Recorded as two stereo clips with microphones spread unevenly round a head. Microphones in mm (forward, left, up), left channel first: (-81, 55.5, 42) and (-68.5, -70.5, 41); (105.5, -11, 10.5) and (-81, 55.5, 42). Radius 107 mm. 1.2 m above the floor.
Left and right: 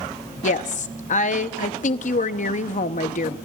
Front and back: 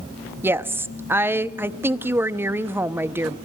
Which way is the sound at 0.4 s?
75° left.